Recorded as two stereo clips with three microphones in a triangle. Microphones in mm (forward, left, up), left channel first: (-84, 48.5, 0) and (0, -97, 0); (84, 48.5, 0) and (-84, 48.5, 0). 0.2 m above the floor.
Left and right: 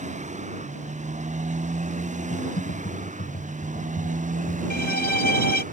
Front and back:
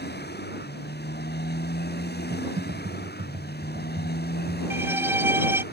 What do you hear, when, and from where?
0.0 s a motorcycle: 15° right; by 5.7 s 20° right
2.3 s typing on a keyboard: 145° left
4.7 s a violin: 105° left